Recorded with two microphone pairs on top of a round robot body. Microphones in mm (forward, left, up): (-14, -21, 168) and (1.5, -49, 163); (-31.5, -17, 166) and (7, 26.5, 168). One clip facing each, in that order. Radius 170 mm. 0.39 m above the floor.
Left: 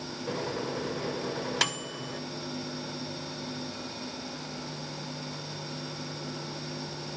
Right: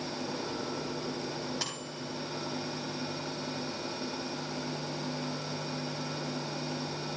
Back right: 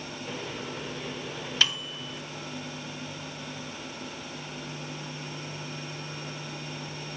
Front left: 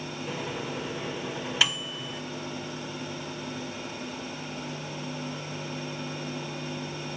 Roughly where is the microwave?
Behind left.